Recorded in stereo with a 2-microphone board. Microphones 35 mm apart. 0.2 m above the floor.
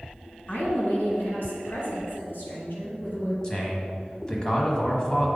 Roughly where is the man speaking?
Left.